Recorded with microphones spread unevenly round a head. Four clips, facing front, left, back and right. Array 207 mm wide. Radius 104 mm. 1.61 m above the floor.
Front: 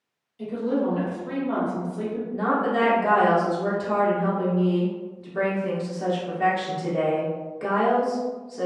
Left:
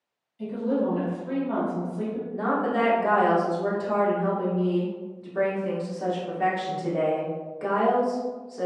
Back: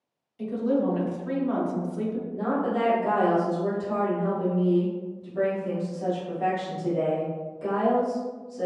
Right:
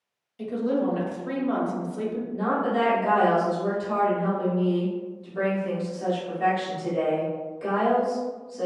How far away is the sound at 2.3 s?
About 1.1 m.